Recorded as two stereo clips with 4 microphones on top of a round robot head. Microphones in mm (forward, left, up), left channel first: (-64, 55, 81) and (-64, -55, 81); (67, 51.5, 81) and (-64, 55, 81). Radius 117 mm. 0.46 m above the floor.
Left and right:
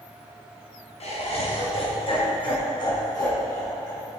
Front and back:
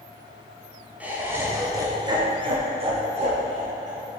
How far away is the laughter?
About 3 m.